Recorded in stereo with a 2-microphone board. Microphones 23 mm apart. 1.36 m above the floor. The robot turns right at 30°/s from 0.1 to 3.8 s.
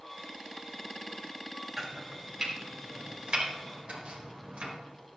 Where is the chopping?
Centre (ahead or behind), 4 m; by 4.7 s 60° right (ahead or behind), 4 m.